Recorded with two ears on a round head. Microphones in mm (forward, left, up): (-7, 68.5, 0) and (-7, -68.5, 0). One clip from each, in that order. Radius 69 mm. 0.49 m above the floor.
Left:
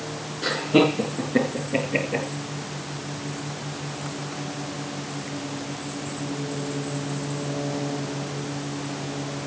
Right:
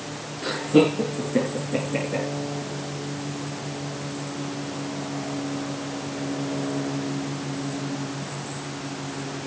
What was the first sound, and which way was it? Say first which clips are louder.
Laughter: even; 20° left (ahead or behind).